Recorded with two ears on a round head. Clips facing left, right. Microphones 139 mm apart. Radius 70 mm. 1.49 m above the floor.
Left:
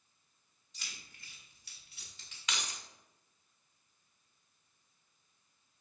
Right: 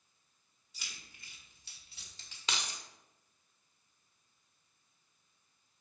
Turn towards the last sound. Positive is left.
turn(degrees=-25)  # may be behind; listen again after turning